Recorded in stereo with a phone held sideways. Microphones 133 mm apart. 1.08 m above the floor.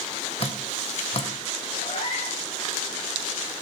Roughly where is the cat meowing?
Left.